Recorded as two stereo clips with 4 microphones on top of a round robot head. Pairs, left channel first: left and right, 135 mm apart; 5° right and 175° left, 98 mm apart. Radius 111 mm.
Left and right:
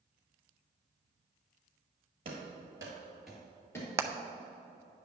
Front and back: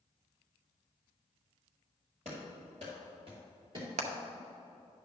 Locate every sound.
2.2 s running footsteps: 135° right, 2 m; by 3.9 s 150° left, 1.7 m
4.0 s hammering: 165° right, 0.5 m